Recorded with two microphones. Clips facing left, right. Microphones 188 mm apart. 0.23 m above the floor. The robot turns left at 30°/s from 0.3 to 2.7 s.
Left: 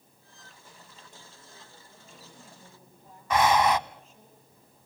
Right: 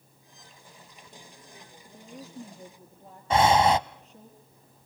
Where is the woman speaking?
65° right (ahead or behind), 3.5 m; by 4.3 s 40° right (ahead or behind), 3.5 m.